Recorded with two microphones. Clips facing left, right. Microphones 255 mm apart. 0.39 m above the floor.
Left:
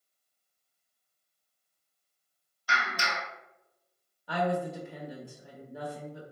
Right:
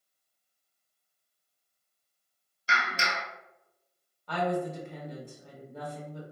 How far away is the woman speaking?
About 0.8 m.